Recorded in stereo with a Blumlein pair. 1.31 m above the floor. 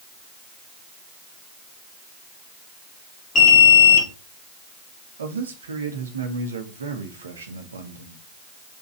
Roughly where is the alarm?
Ahead left.